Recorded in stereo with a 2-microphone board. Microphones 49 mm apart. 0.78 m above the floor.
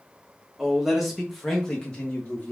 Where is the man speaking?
10° right (ahead or behind), 1.1 m; by 2.5 s 30° left (ahead or behind), 1.1 m.